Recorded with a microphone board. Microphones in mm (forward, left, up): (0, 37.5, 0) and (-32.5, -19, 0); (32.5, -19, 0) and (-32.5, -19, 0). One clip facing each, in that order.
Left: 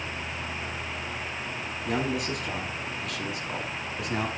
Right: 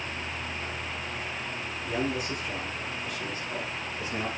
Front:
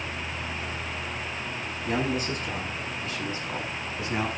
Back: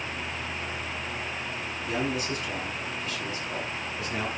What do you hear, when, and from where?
1.9 s a man speaking: 45° left, 5.5 m; by 4.3 s 60° left, 6 m